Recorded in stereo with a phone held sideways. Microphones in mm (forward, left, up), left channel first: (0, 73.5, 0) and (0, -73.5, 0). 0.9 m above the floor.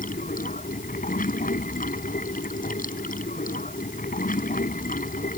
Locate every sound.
0.0 s running water: 70° left (ahead or behind)